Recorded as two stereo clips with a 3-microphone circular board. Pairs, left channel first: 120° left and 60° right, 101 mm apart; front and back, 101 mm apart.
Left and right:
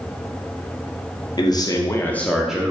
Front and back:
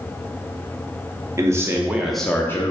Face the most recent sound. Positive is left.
turn(degrees=0)